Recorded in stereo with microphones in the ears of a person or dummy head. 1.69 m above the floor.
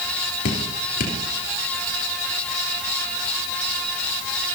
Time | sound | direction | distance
0.5 | dripping | 60° left (ahead or behind) | 3.5 m